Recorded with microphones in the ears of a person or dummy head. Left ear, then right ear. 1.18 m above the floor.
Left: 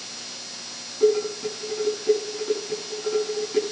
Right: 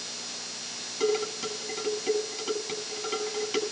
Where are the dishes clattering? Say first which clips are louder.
Left 7 dB; 80° right, 7.5 m.